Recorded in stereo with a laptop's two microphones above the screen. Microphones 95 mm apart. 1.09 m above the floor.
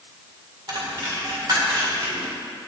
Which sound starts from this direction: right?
A dropped coin, at 0.7 s.